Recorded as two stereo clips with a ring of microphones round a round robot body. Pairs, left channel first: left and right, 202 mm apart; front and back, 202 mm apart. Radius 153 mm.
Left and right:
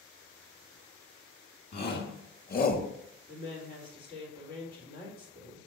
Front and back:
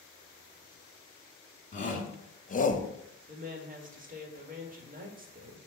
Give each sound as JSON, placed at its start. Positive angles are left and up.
{"t": 1.7, "sound": "a shout", "azimuth_deg": 50, "distance_m": 2.0}
{"t": 3.3, "sound": "a woman speaking", "azimuth_deg": 135, "distance_m": 1.9}